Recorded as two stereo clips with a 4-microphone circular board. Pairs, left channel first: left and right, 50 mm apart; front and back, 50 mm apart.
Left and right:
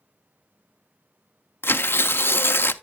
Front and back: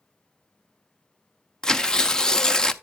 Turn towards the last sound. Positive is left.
turn(degrees=75)